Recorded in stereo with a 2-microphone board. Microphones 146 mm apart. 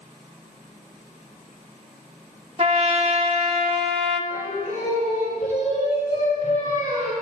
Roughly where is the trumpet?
Right.